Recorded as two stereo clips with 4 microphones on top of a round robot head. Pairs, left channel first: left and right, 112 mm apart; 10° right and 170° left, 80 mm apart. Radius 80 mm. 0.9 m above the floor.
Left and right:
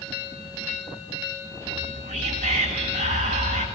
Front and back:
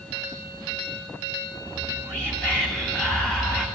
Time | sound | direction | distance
1.7 | whispering | 85° right | 9.5 m